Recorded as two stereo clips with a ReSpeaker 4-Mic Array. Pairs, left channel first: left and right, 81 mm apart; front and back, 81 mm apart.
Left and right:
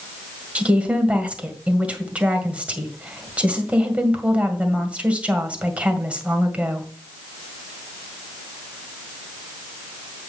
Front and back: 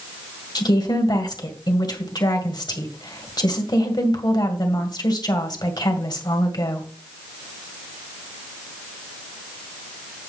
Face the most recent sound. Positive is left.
turn(degrees=-15)